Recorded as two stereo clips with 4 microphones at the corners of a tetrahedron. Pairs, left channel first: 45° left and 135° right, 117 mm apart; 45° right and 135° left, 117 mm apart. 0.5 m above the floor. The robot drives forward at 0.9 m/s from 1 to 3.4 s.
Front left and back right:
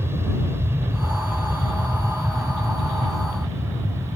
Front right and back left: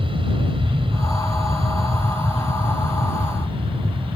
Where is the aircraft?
160° left.